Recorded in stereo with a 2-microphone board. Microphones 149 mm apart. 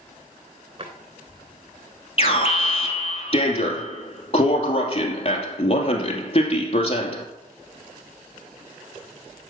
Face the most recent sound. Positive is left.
turn(degrees=40)  # may be behind; listen again after turning